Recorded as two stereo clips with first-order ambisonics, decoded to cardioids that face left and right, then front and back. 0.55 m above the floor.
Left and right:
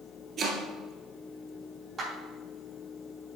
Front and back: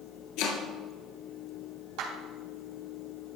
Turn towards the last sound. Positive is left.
turn(degrees=-165)